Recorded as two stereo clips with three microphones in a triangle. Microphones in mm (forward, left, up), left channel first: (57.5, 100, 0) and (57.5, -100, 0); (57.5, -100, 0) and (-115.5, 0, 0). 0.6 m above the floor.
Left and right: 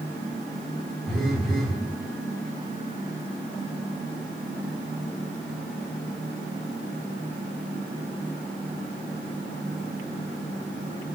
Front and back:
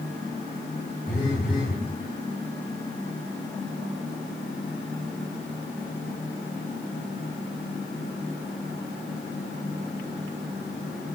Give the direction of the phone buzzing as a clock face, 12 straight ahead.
12 o'clock.